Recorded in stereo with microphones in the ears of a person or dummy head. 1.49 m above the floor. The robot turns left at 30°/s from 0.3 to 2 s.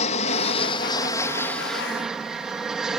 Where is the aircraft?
40° left (ahead or behind); by 3.0 s centre (ahead or behind).